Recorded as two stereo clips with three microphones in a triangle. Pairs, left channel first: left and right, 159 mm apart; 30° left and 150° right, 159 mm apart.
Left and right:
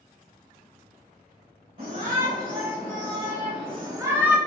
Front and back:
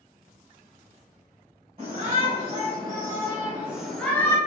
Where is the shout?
100° right, 1.9 m; by 4.4 s 10° right, 0.8 m.